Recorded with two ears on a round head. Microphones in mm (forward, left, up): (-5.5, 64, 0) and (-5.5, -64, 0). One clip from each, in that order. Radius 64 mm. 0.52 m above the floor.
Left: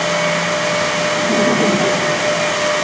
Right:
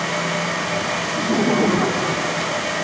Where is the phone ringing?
I don't hear a phone ringing.